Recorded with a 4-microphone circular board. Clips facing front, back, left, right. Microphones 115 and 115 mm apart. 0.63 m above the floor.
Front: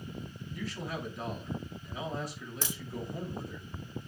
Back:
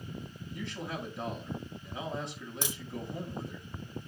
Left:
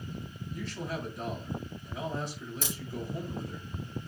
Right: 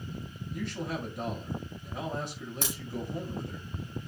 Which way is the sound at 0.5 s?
115° right.